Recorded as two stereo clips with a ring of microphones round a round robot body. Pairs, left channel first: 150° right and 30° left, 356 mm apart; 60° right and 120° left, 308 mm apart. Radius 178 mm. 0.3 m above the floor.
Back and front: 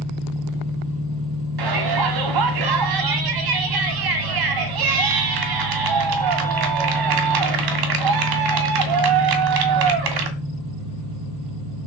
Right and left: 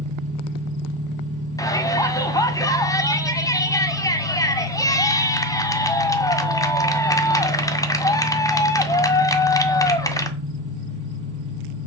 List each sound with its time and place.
0.0 s an engine running: 70° left, 4 m
1.6 s a shout: 20° left, 1.8 m